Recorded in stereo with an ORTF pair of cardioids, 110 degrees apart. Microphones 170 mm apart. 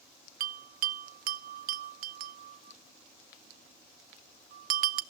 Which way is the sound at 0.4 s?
55° right.